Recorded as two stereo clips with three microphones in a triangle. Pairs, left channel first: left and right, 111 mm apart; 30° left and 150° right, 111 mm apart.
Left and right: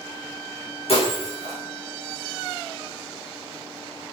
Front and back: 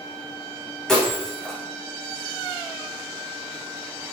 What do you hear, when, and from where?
0.9 s breaking glass: 115° left, 7 m